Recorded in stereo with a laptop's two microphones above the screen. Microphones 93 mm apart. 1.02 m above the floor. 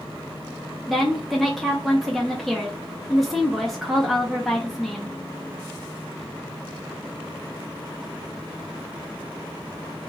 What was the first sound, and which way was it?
A woman speaking, centre (ahead or behind).